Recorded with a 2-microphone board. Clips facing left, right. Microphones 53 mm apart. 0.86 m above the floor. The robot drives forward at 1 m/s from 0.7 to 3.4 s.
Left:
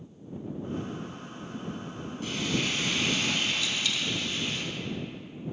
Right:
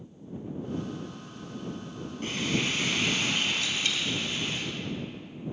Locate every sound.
2.2 s frying: 45° right (ahead or behind), 2.5 m; by 4.6 s 30° right (ahead or behind), 3 m
3.6 s a dropped coin: 45° right (ahead or behind), 0.9 m